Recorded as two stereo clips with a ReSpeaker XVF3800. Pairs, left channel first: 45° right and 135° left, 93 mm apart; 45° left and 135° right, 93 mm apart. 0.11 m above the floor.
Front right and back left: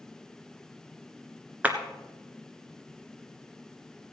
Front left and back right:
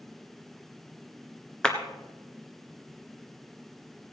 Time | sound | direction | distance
1.6 | a clap | 105° left | 1.4 m